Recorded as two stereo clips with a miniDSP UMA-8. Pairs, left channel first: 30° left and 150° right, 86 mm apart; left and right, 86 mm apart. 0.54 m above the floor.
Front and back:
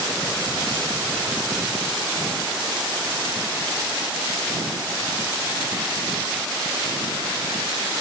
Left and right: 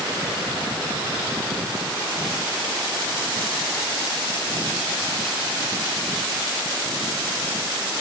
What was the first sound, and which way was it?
Only background noise.